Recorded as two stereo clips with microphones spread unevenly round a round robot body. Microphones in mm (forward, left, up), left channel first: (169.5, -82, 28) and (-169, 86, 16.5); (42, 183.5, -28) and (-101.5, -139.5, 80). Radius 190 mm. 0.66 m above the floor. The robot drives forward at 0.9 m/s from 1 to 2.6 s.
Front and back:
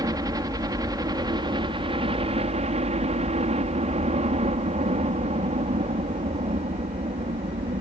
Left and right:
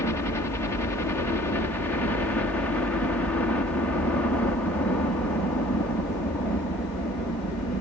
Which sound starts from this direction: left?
A helicopter, at 0.0 s.